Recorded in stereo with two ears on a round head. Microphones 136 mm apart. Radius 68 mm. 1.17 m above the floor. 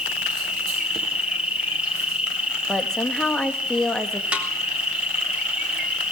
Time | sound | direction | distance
0.0 | an insect | 5° right (ahead or behind) | 4.5 m
2.7 | a woman speaking | 5° left (ahead or behind) | 1.4 m
4.3 | a snare drum | 10° right (ahead or behind) | 3.5 m